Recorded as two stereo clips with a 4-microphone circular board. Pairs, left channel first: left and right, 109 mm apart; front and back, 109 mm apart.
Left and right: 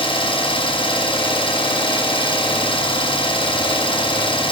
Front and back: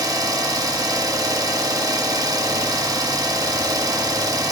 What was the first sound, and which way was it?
An engine running, 125° left.